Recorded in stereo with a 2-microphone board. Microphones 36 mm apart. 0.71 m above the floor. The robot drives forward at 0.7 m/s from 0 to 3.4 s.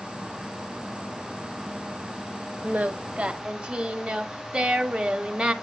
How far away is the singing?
About 0.5 m.